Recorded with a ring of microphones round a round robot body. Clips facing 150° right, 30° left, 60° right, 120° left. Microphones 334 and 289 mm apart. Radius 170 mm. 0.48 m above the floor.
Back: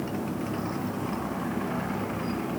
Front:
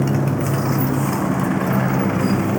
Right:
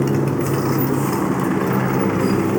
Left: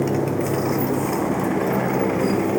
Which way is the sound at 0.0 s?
10° left.